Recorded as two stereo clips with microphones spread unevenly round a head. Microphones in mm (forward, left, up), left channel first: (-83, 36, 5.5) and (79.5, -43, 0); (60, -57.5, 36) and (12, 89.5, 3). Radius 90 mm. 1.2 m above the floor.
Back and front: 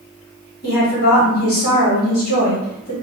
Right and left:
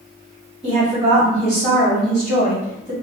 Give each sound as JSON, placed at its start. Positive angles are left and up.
{"t": 0.6, "sound": "a woman speaking", "azimuth_deg": -165, "distance_m": 1.5}